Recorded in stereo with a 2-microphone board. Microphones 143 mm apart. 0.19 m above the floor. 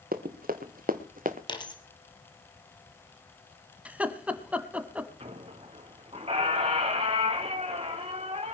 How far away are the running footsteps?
About 2 m.